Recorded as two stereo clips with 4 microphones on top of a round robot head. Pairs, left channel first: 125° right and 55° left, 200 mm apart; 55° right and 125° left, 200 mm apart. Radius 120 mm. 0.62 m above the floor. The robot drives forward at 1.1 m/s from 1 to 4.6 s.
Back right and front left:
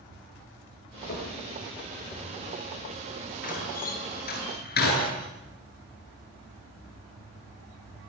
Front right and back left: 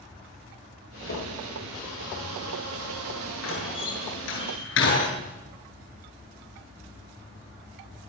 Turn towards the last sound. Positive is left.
turn(degrees=-85)